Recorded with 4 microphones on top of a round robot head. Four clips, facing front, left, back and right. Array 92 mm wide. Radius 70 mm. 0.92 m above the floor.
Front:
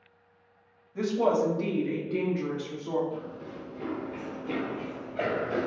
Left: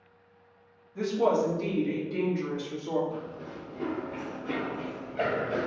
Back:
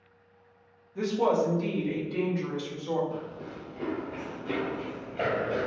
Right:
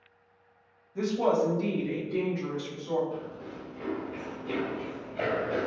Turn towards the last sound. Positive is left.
turn(degrees=10)